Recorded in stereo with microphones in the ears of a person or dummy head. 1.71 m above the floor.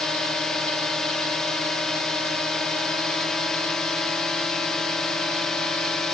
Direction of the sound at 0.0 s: Centre (ahead or behind).